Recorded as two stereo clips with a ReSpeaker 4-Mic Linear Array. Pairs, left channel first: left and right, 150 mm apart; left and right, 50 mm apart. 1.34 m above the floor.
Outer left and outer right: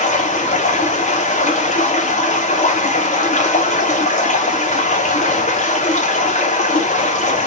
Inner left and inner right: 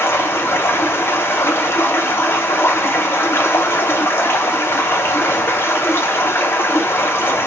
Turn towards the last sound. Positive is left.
turn(degrees=55)  # may be behind; listen again after turning